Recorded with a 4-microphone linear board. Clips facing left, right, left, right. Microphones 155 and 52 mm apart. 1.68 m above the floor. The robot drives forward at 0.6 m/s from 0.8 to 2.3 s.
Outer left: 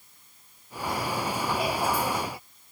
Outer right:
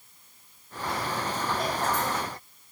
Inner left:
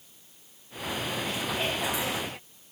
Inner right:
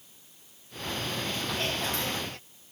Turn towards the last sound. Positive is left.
No sound to turn to.